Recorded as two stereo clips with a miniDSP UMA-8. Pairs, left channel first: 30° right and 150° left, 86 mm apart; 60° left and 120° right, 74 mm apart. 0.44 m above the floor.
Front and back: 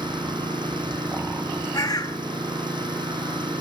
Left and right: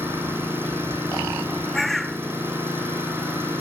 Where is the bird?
30° right, 0.7 m.